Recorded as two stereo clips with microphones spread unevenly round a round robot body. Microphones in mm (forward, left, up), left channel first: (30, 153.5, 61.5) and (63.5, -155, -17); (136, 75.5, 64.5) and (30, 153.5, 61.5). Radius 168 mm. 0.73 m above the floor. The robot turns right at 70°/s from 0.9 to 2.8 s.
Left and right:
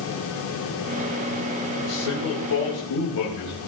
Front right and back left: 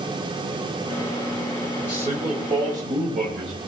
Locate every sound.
1.8 s a man speaking: 80° left, 4 m; by 3.6 s 150° left, 4 m